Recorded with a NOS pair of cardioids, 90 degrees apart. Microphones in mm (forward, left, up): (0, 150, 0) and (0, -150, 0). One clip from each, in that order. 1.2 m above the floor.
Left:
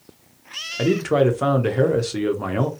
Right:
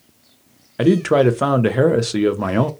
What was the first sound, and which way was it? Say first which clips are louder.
A man speaking: right 4 dB; 25° right.